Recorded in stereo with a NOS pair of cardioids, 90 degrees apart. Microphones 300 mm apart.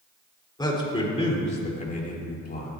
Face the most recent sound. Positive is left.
turn(degrees=35)